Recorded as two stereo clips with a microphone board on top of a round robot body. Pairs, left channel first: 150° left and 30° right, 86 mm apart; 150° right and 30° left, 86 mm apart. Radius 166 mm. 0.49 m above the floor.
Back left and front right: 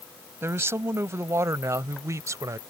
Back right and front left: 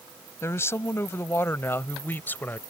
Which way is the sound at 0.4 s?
90° right.